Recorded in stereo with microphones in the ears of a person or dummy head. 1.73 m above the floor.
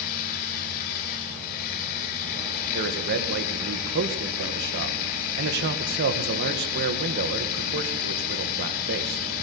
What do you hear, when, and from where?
0.0 s running water: 30° left (ahead or behind), 1.6 m
2.7 s a man speaking: 60° right (ahead or behind), 2 m